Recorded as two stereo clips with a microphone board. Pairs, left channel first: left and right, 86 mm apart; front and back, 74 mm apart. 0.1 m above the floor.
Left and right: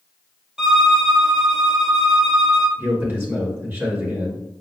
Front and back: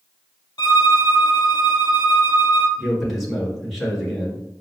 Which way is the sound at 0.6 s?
10° right.